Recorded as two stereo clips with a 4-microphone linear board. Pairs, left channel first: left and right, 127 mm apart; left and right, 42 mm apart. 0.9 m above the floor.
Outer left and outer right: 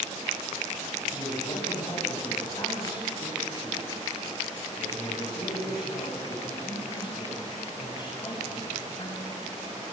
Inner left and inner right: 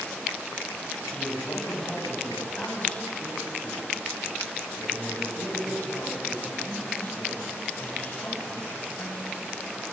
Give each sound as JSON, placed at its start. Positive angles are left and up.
{"t": 1.1, "sound": "a man speaking", "side_deg": 35, "distance_m": 6.5}